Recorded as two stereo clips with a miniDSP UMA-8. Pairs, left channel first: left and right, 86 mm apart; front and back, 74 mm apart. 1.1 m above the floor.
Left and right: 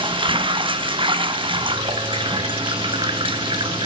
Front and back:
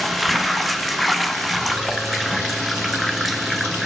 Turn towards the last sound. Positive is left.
turn(degrees=-90)